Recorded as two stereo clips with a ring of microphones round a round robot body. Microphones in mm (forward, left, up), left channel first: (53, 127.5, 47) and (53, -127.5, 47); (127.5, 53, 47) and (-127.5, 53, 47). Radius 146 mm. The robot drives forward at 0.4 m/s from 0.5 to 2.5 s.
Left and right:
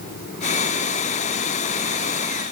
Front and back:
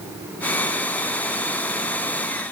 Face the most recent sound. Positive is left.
No sound to turn to.